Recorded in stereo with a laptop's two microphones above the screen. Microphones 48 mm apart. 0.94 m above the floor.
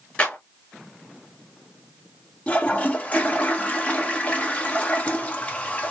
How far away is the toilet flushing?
About 1.2 m.